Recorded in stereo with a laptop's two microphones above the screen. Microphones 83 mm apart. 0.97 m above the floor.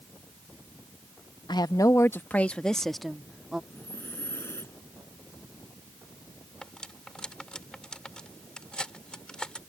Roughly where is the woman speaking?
Left.